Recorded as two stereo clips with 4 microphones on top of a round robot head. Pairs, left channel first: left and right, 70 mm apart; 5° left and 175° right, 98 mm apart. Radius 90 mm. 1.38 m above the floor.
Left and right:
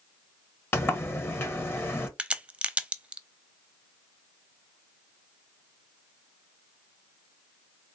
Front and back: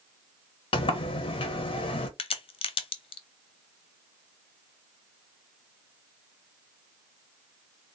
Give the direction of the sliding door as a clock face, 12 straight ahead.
11 o'clock.